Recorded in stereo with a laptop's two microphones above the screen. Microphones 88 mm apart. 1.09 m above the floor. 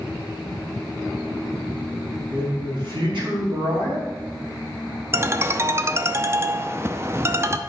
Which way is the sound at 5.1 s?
30° right (ahead or behind).